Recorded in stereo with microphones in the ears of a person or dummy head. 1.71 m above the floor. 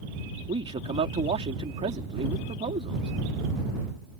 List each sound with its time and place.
0.5 s a man speaking: 35° right (ahead or behind)